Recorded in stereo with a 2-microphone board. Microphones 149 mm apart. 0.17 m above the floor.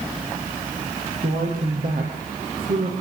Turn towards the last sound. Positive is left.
turn(degrees=-75)  # may be behind; listen again after turning